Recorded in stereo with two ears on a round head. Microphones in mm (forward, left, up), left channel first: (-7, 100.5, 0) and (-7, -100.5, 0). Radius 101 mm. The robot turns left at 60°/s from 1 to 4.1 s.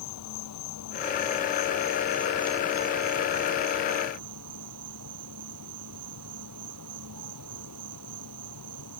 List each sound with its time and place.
0.0 s an insect: 80° left; by 9.0 s 110° right